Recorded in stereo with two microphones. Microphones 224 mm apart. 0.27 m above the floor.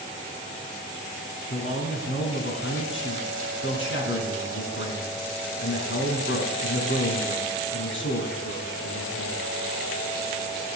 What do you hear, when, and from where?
1.5 s a man speaking: 65° left (ahead or behind), 2.5 m